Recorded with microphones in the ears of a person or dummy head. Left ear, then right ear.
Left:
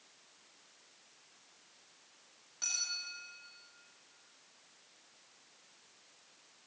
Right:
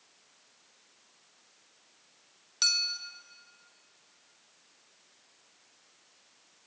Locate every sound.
2.6 s a clink: 65° right (ahead or behind), 1.9 m